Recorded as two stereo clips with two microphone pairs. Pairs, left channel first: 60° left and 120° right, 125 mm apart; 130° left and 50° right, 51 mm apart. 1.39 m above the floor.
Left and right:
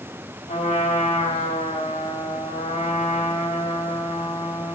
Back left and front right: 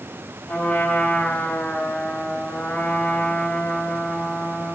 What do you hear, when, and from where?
0.5 s a trumpet: 75° left, 3 m